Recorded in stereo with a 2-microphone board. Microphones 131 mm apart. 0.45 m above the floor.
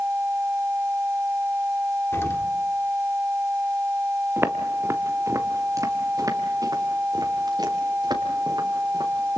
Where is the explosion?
20° left (ahead or behind), 1.4 m.